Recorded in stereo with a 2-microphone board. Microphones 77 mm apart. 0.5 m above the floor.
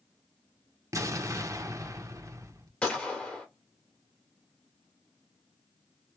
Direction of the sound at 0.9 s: 45° right (ahead or behind).